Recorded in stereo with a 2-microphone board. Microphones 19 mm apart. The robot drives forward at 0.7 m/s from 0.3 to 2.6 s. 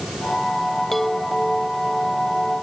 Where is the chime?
15° left (ahead or behind); by 2.6 s 10° left (ahead or behind).